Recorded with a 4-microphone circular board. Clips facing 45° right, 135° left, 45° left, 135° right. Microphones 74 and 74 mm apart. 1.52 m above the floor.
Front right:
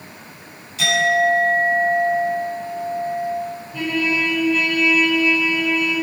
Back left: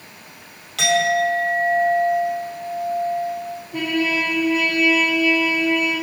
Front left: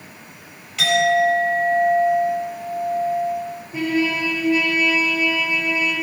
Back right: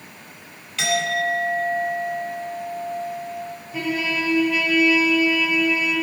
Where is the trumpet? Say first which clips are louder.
Even, front left 4 dB; 105° left, 5 m.